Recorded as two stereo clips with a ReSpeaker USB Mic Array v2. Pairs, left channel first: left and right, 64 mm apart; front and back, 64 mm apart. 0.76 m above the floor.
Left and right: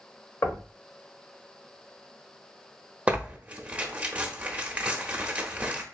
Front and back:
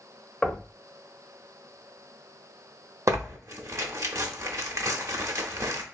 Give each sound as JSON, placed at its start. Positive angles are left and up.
{"t": 0.4, "sound": "knocking", "azimuth_deg": 75, "distance_m": 0.9}
{"t": 3.1, "sound": "tearing paper", "azimuth_deg": -155, "distance_m": 0.7}